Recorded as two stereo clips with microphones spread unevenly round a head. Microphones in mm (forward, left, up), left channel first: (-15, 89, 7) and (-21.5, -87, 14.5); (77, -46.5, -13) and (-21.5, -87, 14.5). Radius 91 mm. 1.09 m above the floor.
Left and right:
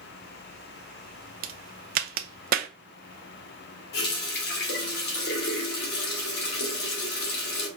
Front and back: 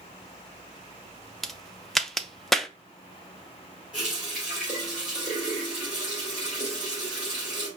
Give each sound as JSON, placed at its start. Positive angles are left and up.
{"t": 1.4, "sound": "a crack", "azimuth_deg": -55, "distance_m": 0.5}
{"t": 3.9, "sound": "a running tap", "azimuth_deg": 120, "distance_m": 1.6}